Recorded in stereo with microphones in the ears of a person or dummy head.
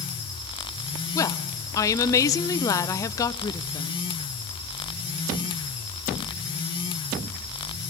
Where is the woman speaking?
25° left (ahead or behind), 0.5 m.